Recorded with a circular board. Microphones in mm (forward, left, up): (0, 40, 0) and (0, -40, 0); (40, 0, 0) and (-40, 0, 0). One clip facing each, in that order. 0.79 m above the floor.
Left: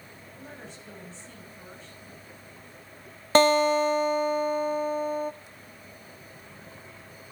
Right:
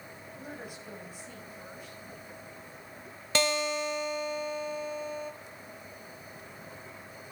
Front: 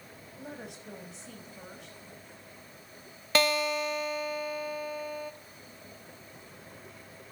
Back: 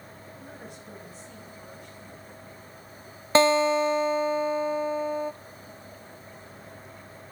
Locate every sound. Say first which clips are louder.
0.4 s a woman speaking: right 1 dB, front 3 dB; 10° right, 6 m
3.4 s a guitar: left 10 dB, back 8 dB; 125° left, 0.8 m